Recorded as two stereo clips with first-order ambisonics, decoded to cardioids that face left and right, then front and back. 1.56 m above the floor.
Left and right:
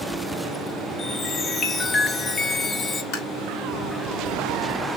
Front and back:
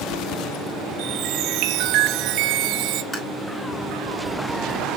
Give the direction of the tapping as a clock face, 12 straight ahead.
10 o'clock.